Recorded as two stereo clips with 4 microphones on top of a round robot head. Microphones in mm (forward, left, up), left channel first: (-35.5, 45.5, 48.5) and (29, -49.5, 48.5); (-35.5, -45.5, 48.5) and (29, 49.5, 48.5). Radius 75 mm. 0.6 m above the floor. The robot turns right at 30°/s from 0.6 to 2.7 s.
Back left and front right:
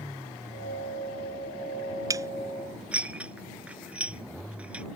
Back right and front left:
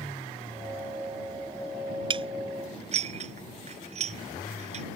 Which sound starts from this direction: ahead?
Dishes clattering, at 2.1 s.